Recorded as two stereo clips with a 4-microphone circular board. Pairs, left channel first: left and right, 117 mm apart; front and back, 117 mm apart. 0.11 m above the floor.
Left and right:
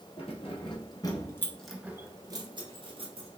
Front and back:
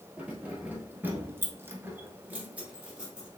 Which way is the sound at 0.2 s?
100° left.